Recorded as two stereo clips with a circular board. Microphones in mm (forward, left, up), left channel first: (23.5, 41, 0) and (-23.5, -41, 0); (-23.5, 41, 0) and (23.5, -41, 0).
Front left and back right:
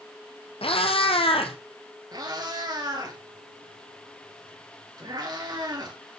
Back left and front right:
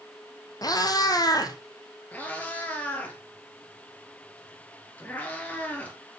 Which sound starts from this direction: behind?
A cat meowing, at 2.1 s.